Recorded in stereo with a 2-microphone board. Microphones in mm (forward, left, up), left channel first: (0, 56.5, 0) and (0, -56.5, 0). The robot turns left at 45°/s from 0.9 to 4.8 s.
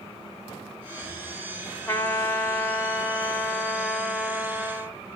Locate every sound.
1.9 s a trumpet: 20° left (ahead or behind), 1.3 m; by 5.0 s 10° right (ahead or behind), 1.3 m